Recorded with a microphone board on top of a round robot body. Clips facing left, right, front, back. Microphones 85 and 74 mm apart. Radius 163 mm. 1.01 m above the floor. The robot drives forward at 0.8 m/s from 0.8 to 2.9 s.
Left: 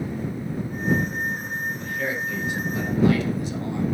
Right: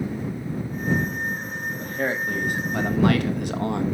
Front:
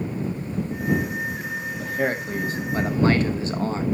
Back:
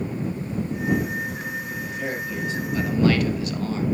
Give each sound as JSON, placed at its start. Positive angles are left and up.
{"t": 1.8, "sound": "a man speaking", "azimuth_deg": -35, "distance_m": 1.9}